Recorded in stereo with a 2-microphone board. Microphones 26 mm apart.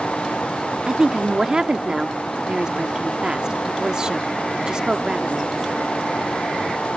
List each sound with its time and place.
0.9 s a woman speaking: 25° right (ahead or behind), 0.8 m